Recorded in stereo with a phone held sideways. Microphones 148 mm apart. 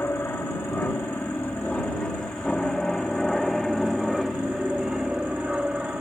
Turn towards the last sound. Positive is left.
turn(degrees=-5)  # may be behind; listen again after turning